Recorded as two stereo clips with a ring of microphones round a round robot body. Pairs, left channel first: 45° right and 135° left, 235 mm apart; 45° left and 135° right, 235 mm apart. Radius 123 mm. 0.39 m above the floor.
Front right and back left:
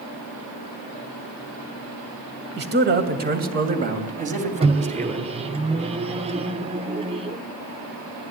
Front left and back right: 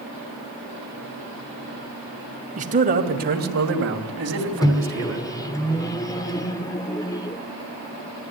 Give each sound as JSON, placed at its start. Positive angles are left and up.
{"t": 2.6, "sound": "a man speaking", "azimuth_deg": 170, "distance_m": 3.0}
{"t": 4.6, "sound": "a microwave", "azimuth_deg": 105, "distance_m": 0.8}